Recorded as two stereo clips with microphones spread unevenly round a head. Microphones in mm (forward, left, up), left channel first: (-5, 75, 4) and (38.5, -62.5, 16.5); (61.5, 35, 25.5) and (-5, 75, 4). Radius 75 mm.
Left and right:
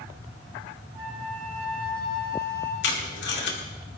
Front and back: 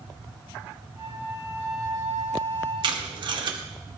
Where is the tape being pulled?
130° left, 2 m.